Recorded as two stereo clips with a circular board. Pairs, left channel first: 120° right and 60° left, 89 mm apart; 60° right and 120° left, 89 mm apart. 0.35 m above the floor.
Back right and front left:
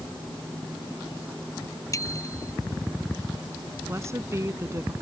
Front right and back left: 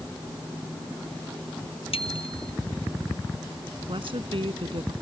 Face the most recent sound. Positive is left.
turn(degrees=120)